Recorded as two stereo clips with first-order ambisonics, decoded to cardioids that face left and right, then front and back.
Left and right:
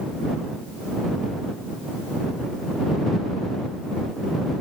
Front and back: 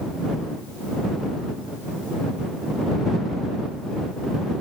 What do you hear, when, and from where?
Only background noise.